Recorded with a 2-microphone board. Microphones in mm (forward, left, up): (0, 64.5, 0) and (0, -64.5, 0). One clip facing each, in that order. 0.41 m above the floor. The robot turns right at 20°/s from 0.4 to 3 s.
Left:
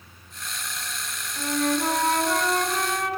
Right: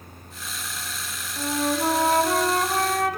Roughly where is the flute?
Behind.